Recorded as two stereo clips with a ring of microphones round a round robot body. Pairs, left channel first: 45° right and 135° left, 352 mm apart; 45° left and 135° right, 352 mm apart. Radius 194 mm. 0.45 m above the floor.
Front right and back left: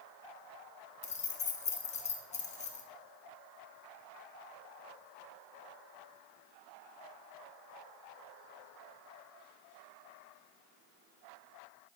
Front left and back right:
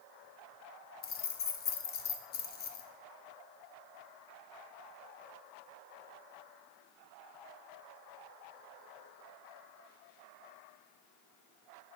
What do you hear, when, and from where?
1.0 s keys jangling: 10° left, 0.6 m